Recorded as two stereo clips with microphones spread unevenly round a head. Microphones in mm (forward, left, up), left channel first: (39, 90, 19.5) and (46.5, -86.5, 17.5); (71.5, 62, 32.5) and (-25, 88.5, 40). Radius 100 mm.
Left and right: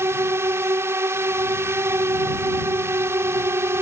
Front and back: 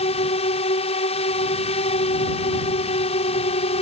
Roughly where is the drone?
Ahead.